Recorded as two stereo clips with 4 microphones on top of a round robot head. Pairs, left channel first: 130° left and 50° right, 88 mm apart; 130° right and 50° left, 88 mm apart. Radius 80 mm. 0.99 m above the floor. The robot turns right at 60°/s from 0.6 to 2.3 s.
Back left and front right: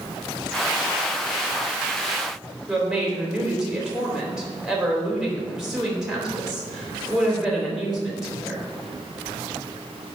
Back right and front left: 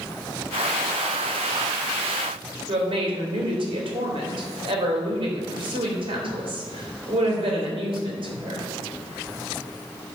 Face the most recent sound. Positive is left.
turn(degrees=35)